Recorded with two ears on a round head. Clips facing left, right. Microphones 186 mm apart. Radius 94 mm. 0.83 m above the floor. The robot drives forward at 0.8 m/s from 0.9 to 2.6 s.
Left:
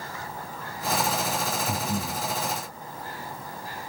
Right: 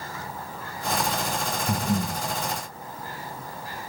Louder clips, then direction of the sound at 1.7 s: Right 3 dB; 60° right (ahead or behind).